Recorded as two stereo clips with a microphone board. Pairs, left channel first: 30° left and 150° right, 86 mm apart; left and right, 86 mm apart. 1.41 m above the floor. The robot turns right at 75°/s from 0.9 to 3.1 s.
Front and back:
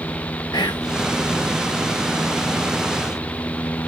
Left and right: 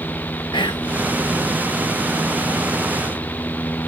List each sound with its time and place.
0.5 s whispering: 65° left, 1.6 m